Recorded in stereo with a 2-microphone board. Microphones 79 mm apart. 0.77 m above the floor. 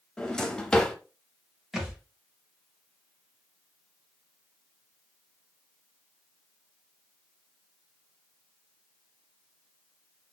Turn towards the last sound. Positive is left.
turn(degrees=-5)  # may be behind; listen again after turning